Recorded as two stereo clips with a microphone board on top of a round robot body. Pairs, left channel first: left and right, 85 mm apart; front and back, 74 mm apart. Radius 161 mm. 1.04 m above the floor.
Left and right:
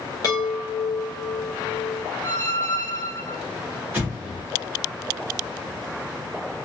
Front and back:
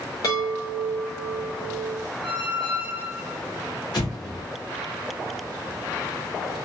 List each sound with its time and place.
0.2 s a chime: 45° left, 0.7 m
2.2 s a squeak: 145° left, 0.5 m
3.9 s an explosion: 25° right, 0.8 m